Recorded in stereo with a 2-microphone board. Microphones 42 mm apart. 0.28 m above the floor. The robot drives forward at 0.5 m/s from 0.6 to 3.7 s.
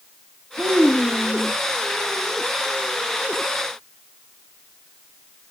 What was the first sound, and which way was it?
A child speaking, 25° left (ahead or behind).